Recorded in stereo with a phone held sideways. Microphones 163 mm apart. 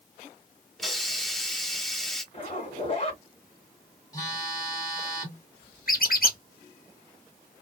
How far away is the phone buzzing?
About 2 m.